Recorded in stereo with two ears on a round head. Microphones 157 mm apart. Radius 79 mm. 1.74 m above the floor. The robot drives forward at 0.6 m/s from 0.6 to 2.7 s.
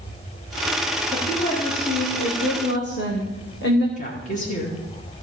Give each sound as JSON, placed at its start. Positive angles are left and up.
{"t": 1.1, "sound": "a woman speaking", "side_deg": 45, "distance_m": 2.5}
{"t": 4.0, "sound": "a woman speaking", "side_deg": 45, "distance_m": 2.5}